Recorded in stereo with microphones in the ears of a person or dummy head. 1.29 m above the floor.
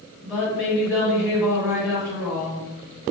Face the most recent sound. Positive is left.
turn(degrees=-10)  # may be behind; listen again after turning